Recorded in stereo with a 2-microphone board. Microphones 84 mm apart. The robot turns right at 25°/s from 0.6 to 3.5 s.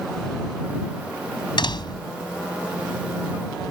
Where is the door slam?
65° left (ahead or behind); by 2.1 s 55° left (ahead or behind).